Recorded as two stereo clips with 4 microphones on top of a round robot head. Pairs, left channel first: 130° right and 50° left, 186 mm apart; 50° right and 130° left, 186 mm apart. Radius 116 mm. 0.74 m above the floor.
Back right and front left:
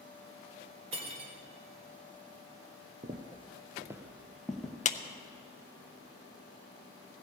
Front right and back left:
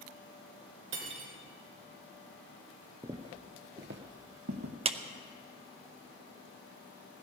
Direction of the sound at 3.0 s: 70° left.